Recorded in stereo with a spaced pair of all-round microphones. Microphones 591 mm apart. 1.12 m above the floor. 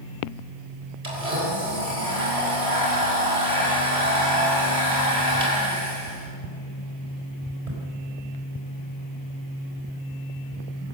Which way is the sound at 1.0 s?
80° right.